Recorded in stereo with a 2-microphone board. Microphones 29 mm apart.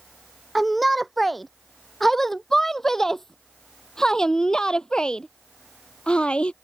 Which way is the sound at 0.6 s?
Centre (ahead or behind).